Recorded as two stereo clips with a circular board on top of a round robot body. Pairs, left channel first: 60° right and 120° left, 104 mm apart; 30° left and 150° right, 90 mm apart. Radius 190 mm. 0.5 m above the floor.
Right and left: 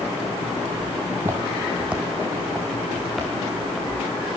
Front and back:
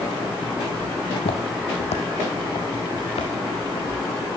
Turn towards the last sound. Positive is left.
turn(degrees=35)